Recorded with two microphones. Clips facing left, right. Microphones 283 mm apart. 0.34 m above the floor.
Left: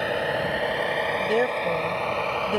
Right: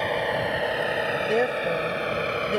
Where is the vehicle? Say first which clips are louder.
Even; 5° left (ahead or behind); by 2.6 s 20° right (ahead or behind).